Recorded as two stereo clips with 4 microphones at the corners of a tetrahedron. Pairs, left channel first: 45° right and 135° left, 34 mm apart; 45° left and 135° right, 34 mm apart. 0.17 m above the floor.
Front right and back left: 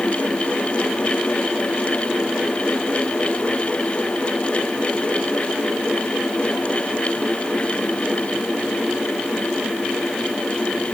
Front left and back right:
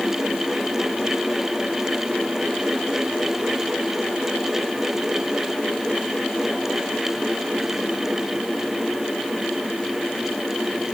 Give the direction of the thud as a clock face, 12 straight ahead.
No thud in this recording.